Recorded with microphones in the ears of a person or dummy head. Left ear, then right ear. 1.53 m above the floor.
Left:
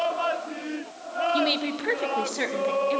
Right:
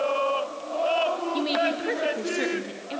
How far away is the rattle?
I don't hear a rattle.